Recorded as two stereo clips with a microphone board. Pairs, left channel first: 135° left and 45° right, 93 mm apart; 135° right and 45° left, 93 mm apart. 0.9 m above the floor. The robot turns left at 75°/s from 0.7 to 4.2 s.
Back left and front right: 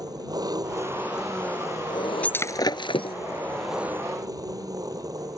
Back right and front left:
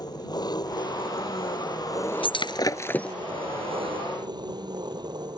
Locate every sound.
0.0 s an engine running: 90° right; by 5.4 s 5° left
2.2 s breaking glass: 150° right; by 3.2 s 140° left